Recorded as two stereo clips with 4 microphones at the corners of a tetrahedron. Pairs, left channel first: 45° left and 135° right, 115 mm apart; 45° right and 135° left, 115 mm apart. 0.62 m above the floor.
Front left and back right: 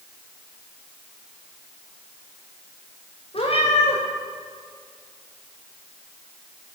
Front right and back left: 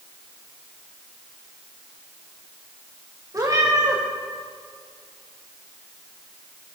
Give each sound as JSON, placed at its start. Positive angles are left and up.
{"t": 3.3, "sound": "a cat meowing", "azimuth_deg": 75, "distance_m": 6.5}